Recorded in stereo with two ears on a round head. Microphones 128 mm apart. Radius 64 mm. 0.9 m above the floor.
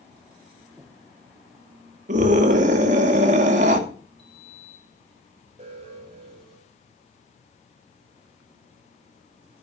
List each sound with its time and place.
0.8 s breathing: 5° right (ahead or behind), 1.3 m
2.1 s a scream: 55° right (ahead or behind), 2.5 m
4.2 s a sliding door: 5° left (ahead or behind), 5.5 m
5.6 s an alarm: 45° right (ahead or behind), 7 m